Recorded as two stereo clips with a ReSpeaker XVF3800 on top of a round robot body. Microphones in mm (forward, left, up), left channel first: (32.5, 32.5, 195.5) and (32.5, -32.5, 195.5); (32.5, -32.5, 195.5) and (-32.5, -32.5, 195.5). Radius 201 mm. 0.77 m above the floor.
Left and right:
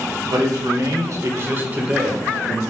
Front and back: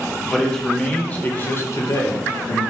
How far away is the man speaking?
About 1.6 m.